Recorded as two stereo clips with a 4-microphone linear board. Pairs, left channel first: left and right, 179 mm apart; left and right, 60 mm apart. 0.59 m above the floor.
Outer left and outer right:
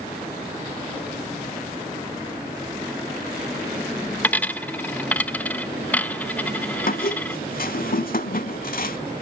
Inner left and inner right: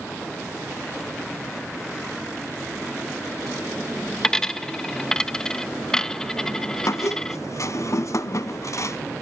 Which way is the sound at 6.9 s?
55° left (ahead or behind).